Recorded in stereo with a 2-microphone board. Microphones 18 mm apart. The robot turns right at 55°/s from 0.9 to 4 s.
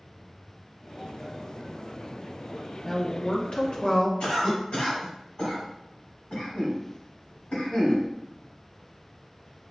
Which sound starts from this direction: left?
A cough, at 4.2 s.